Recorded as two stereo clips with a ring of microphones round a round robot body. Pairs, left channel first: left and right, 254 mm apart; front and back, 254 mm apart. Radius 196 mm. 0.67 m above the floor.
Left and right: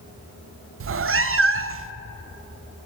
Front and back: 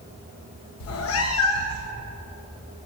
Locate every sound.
0.8 s a cat meowing: 40° right, 0.6 m